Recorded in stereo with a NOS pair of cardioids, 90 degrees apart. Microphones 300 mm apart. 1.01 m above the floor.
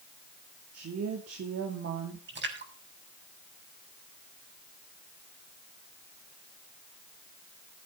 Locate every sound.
0.7 s a woman speaking: 55° right, 2.5 m
2.3 s a splash: 40° right, 6 m